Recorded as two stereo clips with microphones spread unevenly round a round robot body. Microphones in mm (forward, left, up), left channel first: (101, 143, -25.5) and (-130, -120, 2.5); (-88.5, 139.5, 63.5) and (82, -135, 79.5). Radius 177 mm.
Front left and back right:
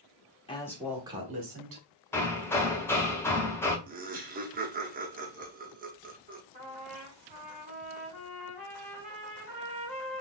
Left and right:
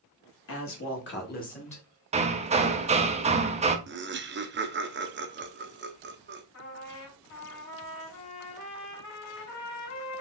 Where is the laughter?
80° right, 0.7 m.